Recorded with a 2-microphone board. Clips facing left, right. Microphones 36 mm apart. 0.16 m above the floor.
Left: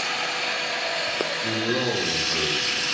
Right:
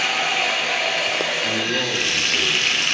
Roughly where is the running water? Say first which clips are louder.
Right 6 dB; right.